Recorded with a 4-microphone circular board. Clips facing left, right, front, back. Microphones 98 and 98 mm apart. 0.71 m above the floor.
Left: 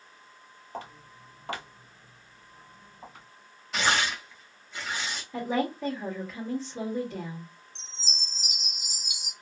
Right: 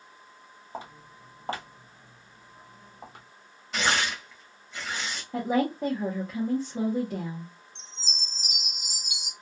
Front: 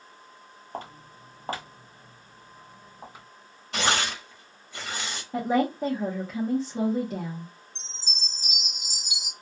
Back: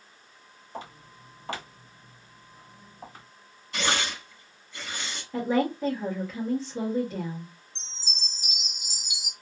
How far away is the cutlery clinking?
I don't hear cutlery clinking.